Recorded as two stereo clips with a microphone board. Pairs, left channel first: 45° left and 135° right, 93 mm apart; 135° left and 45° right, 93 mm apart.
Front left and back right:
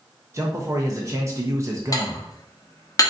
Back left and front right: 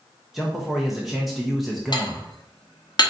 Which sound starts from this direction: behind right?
A man speaking, at 0.3 s.